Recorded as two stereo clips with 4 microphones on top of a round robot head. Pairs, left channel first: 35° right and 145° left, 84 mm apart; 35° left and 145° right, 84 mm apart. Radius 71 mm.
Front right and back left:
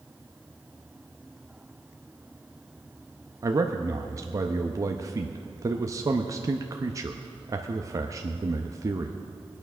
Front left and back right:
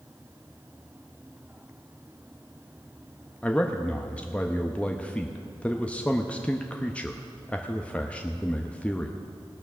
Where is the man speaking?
105° left, 0.7 m.